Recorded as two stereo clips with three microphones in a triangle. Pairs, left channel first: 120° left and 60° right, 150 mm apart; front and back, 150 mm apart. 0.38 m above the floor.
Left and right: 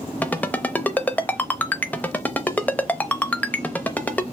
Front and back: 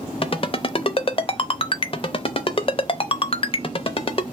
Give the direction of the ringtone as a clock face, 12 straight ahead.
11 o'clock.